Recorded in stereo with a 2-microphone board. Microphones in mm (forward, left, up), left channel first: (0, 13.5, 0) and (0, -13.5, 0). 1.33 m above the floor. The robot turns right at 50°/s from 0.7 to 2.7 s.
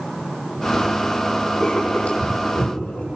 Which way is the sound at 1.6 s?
25° left (ahead or behind).